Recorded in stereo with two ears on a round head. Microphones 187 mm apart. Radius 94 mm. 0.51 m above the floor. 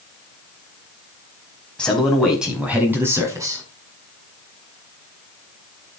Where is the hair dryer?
No hair dryer in this recording.